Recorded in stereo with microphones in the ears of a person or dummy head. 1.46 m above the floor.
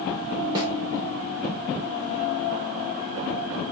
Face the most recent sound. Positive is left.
turn(degrees=-25)  # may be behind; listen again after turning